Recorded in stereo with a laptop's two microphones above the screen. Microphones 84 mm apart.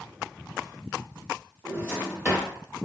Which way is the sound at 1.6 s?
25° right (ahead or behind).